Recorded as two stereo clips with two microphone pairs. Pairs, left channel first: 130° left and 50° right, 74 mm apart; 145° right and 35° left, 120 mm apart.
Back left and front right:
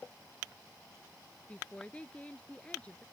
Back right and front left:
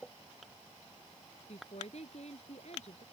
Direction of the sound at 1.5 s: 160° right.